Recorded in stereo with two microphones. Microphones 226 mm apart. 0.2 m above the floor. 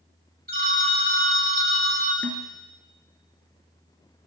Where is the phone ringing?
45° right (ahead or behind), 0.9 m.